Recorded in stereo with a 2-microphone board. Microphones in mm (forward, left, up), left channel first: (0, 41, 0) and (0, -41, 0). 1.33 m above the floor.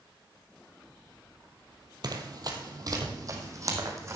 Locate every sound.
2.0 s running footsteps: 50° right (ahead or behind), 2 m; by 4.2 s 35° right (ahead or behind), 4 m